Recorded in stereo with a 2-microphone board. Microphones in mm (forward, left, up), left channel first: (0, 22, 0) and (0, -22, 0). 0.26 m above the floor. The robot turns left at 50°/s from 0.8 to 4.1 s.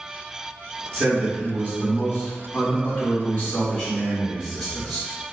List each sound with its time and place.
0.9 s a man speaking: 165° left, 1.4 m; by 5.1 s 5° left, 1.4 m